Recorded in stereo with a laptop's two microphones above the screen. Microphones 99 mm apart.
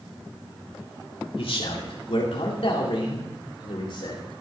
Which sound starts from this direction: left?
A man speaking, at 1.4 s.